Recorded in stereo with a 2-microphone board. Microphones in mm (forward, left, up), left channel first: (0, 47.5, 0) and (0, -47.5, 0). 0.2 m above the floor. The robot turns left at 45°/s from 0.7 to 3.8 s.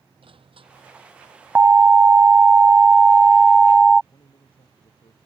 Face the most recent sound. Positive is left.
turn(degrees=75)  # may be behind; listen again after turning